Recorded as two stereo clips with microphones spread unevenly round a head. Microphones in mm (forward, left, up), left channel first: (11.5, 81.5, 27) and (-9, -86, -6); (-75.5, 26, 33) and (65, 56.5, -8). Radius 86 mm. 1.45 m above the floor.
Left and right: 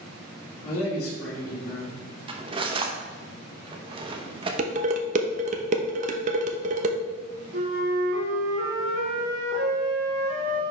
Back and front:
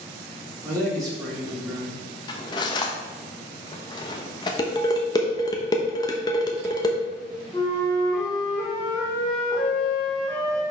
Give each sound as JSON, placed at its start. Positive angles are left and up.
{"t": 0.6, "sound": "a man speaking", "azimuth_deg": 80, "distance_m": 3.5}
{"t": 2.3, "sound": "cutlery clinking", "azimuth_deg": -160, "distance_m": 0.8}
{"t": 4.6, "sound": "dishes clattering", "azimuth_deg": -140, "distance_m": 0.7}
{"t": 7.5, "sound": "a flute", "azimuth_deg": -95, "distance_m": 2.0}